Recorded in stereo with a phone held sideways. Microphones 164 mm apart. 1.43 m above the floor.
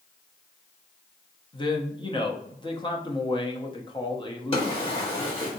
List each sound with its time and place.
1.5 s a man speaking: 30° left (ahead or behind), 0.8 m
4.5 s a drawer: 35° left (ahead or behind), 1.6 m